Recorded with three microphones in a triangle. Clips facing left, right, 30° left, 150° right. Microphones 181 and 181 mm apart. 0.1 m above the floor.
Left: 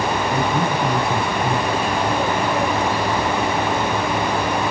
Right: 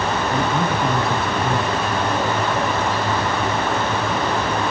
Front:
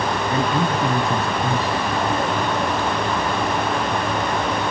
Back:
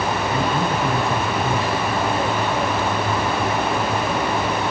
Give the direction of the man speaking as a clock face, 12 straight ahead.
12 o'clock.